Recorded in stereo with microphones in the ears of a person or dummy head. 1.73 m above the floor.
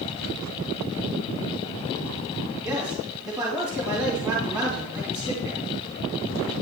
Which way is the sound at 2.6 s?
25° right (ahead or behind).